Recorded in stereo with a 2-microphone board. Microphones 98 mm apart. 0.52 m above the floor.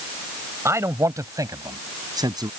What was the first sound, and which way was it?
A man speaking, 30° right (ahead or behind).